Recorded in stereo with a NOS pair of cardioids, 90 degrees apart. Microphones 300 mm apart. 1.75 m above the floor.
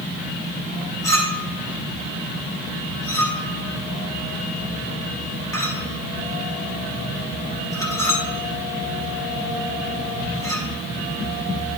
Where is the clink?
10° left, 3 m.